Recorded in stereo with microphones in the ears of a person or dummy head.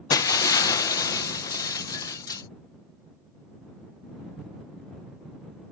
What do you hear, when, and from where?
0.1 s breaking glass: 20° left (ahead or behind)